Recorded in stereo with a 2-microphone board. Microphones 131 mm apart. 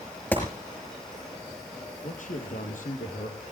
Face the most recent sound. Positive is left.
turn(degrees=65)  # may be behind; listen again after turning